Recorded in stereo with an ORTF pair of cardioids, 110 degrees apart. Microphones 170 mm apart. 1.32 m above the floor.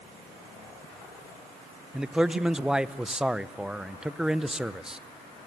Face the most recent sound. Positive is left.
turn(degrees=-5)